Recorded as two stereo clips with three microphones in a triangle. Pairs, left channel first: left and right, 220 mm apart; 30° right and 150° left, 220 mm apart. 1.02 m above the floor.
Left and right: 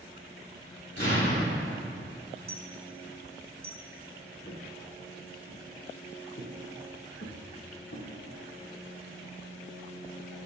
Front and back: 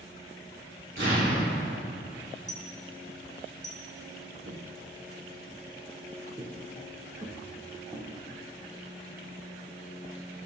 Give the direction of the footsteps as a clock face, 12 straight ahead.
8 o'clock.